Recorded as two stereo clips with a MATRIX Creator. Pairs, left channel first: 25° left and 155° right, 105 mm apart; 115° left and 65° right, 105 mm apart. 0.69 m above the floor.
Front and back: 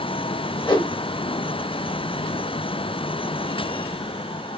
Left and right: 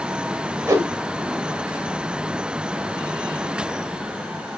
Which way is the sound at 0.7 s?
10° right.